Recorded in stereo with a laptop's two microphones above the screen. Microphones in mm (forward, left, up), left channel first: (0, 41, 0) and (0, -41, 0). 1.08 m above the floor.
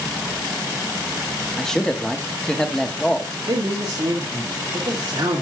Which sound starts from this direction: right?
A man speaking, at 3.5 s.